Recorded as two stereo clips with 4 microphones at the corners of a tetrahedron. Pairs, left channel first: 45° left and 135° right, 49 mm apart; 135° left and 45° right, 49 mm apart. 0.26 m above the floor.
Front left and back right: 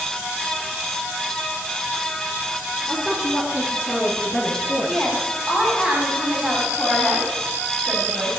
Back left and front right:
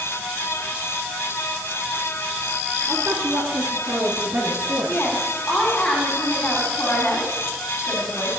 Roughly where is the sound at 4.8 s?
Behind.